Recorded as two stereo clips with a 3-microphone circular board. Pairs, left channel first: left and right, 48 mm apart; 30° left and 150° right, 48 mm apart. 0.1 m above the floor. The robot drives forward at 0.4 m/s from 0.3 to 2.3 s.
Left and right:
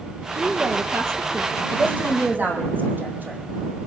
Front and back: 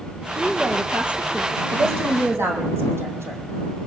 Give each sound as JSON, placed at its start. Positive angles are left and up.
{"t": 0.3, "sound": "a woman speaking", "azimuth_deg": -85, "distance_m": 3.0}
{"t": 1.7, "sound": "a woman speaking", "azimuth_deg": -135, "distance_m": 5.0}